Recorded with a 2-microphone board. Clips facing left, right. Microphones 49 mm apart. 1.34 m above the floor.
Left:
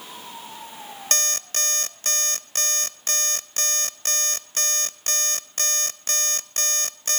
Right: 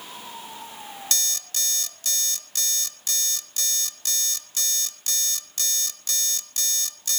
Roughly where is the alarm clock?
Left.